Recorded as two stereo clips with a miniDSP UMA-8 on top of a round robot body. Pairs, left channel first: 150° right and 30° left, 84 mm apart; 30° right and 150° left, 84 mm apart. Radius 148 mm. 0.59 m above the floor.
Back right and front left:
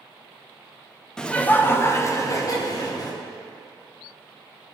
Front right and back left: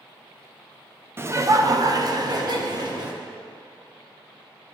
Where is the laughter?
135° left, 0.8 m; by 3.1 s 175° left, 1.5 m.